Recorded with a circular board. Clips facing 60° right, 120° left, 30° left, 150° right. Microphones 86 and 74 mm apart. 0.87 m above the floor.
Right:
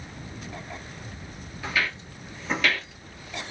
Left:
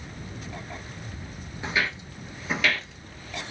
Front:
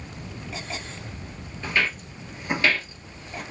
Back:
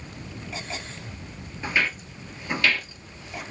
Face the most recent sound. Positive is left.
turn(degrees=10)